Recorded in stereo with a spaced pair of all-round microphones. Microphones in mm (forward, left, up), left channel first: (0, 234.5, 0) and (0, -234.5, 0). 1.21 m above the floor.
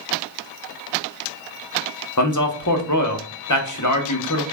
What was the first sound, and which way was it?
A man speaking, 40° left (ahead or behind).